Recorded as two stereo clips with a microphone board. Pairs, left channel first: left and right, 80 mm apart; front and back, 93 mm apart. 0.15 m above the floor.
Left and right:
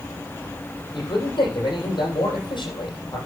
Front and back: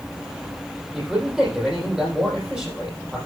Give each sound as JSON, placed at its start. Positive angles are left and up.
{"t": 0.9, "sound": "a man speaking", "azimuth_deg": 100, "distance_m": 7.5}